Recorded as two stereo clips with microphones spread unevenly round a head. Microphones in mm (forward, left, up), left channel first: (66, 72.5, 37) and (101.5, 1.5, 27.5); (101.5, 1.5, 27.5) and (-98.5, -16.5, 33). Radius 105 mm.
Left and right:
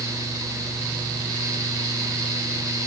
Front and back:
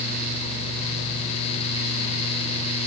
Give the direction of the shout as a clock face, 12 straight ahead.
I don't hear a shout.